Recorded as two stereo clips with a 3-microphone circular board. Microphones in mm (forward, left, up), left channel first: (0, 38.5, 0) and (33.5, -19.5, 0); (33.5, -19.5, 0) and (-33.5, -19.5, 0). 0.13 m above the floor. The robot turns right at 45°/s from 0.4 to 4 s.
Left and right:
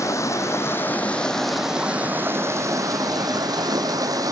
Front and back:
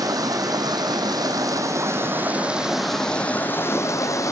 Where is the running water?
160° left, 2.0 m; by 4.3 s 40° right, 2.0 m.